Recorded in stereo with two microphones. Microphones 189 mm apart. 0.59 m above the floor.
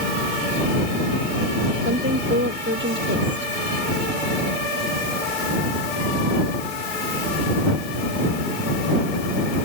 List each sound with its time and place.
1.9 s a woman speaking: 70° right (ahead or behind)